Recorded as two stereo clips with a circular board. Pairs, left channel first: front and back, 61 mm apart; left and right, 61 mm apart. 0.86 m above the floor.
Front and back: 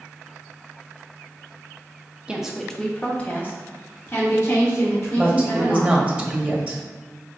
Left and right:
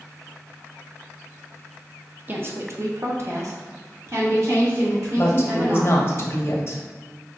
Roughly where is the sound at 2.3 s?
Behind right.